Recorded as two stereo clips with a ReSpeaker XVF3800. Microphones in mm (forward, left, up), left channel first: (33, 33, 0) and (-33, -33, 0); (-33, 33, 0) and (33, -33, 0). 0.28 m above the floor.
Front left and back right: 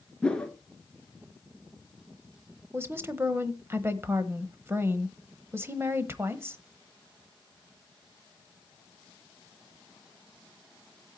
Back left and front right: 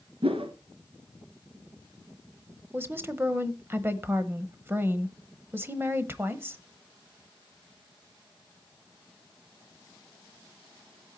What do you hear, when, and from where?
0.2 s a whoosh: 35° right, 1.4 m
2.7 s a woman speaking: 90° right, 1.1 m